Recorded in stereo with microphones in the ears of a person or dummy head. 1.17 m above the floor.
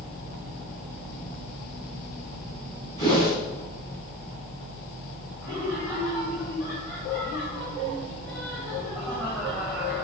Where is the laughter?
10° left (ahead or behind), 3 m.